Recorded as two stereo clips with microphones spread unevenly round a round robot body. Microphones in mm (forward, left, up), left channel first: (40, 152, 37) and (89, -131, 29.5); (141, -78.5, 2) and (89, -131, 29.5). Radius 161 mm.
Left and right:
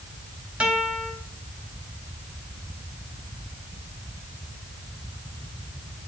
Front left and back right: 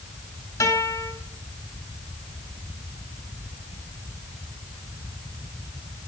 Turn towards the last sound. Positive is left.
turn(degrees=5)